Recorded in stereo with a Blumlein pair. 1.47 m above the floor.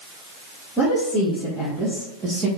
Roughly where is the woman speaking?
Ahead.